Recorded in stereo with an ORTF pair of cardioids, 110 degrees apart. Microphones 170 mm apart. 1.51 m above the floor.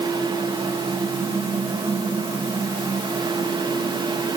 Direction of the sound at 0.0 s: 25° right.